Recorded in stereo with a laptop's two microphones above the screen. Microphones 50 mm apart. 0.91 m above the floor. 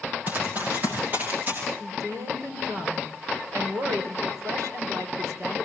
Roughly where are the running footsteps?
Right.